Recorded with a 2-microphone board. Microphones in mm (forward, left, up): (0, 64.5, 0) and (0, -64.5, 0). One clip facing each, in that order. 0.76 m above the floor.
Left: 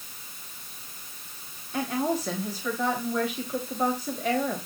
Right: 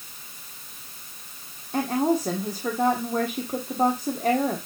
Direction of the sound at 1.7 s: 45° right (ahead or behind).